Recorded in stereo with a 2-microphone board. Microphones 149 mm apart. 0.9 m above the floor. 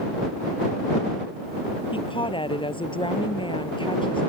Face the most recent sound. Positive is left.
turn(degrees=35)  # may be behind; listen again after turning